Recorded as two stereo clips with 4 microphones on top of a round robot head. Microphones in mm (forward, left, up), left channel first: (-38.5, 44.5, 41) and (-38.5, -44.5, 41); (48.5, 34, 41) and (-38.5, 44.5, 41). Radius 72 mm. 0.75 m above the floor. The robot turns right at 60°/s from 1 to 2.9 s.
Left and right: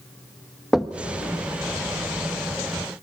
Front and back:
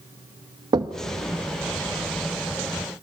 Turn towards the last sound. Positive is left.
turn(degrees=-65)